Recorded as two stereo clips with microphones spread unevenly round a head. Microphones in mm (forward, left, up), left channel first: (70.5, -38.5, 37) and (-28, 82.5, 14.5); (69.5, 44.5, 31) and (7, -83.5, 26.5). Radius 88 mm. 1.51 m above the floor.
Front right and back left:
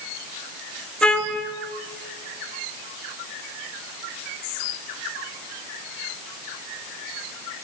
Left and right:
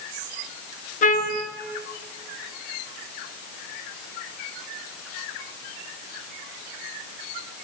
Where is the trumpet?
30° left, 2.5 m.